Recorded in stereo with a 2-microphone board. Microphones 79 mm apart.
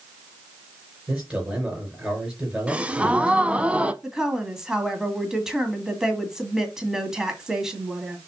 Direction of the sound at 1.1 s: 5° right (ahead or behind).